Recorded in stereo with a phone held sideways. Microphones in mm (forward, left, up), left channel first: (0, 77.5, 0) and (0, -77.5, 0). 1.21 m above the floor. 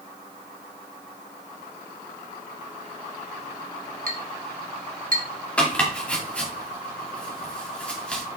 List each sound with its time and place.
4.1 s a clink: 60° right (ahead or behind), 1.6 m
5.6 s chopping: 10° left (ahead or behind), 2 m